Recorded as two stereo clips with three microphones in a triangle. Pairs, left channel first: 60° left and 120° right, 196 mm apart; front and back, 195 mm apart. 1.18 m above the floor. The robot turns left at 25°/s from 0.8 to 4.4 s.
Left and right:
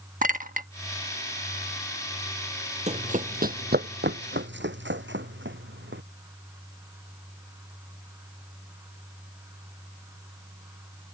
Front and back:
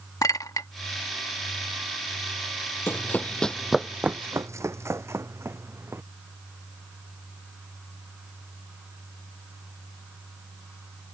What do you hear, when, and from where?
0.2 s a clink: 70° right
2.9 s running footsteps: 75° right; by 6.0 s 100° right